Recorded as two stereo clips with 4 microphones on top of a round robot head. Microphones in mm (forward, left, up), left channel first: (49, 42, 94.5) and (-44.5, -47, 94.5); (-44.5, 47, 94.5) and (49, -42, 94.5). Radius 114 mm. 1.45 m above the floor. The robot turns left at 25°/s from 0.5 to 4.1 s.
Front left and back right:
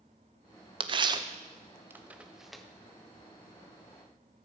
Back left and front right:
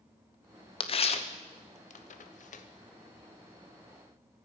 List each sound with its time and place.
0.8 s tearing paper: 175° left, 1.0 m; by 2.6 s 130° left, 1.0 m